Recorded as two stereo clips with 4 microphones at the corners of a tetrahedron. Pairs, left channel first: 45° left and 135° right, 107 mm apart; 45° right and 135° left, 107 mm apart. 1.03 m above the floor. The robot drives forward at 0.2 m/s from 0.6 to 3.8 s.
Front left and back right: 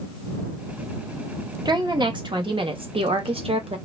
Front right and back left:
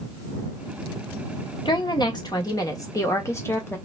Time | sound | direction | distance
1.6 | a woman speaking | 85° right | 0.9 m